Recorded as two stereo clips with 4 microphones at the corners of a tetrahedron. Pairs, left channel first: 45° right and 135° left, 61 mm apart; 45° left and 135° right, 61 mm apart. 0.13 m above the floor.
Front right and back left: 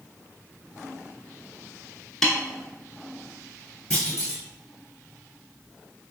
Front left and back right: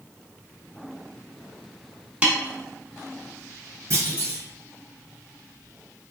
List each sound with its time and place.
2.2 s a snare drum: 115° right, 0.6 m
3.9 s a clunk: 120° right, 1.8 m